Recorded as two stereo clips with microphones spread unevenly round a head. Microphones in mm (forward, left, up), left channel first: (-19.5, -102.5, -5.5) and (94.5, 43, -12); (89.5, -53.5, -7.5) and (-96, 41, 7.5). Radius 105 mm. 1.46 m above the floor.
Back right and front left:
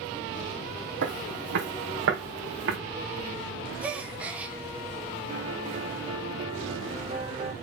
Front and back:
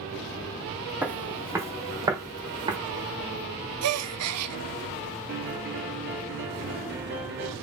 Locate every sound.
1.0 s footsteps: 75° left, 2.5 m; by 2.8 s 85° left, 3.5 m
3.8 s a gasp: 135° left, 0.7 m
5.3 s a piano: 120° left, 4.5 m